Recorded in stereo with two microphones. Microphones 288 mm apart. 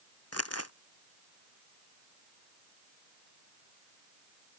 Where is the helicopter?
No helicopter in this recording.